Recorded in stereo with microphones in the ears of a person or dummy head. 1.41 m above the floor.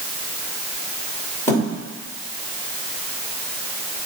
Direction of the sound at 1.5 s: 15° left (ahead or behind).